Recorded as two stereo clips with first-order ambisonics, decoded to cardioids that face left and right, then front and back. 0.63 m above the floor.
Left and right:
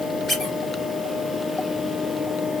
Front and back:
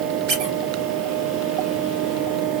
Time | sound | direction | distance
0.3 | a squeak | 170° left | 2.5 m